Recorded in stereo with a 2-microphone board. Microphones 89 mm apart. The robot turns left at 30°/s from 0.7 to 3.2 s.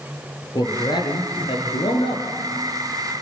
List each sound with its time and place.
0.6 s a man speaking: 125° left, 4 m; by 2.2 s 80° left, 4 m